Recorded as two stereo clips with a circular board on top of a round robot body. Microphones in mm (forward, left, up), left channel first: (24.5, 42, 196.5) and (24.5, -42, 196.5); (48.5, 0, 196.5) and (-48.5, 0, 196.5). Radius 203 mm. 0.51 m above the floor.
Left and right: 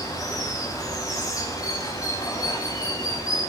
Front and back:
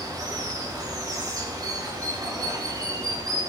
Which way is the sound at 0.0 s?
135° left.